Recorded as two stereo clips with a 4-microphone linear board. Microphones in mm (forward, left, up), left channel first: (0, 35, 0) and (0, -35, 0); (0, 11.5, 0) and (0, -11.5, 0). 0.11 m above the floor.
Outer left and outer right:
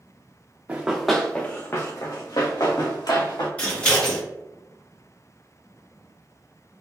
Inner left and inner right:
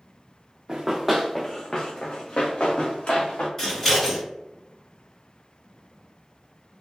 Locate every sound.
0.7 s running footsteps: 20° right (ahead or behind), 0.7 m; by 3.5 s 75° left (ahead or behind), 1.7 m
3.6 s scissors: 15° left (ahead or behind), 1.6 m